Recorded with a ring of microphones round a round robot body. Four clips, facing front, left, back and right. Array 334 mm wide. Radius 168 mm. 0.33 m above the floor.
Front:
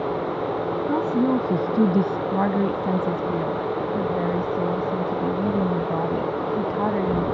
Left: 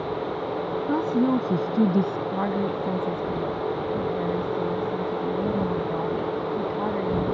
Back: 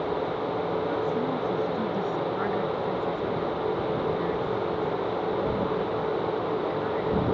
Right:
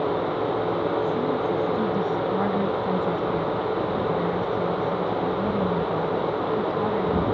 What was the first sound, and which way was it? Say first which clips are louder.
A woman speaking: left 2 dB, front 6 dB; 40° left.